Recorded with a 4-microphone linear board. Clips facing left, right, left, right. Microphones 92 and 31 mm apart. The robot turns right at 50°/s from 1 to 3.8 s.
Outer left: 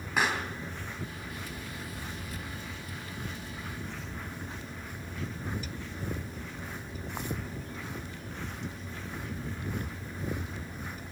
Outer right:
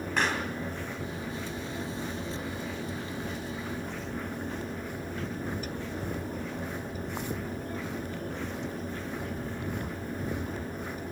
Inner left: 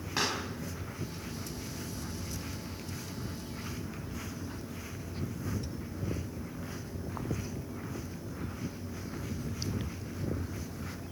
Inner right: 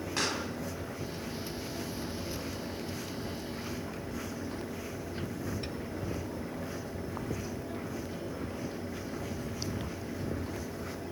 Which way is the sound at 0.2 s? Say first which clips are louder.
Even, inner left 1 dB; 10° left (ahead or behind).